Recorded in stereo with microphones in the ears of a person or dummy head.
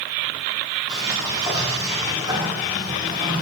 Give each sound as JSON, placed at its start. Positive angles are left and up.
{"t": 0.9, "sound": "a sliding door", "side_deg": -25, "distance_m": 1.5}